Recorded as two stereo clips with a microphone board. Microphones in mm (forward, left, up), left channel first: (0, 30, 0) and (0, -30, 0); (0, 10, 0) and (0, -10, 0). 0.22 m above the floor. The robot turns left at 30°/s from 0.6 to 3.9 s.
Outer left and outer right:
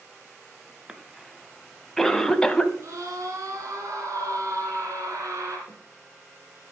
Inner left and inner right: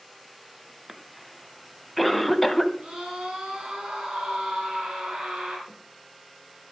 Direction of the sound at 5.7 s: 30° right (ahead or behind).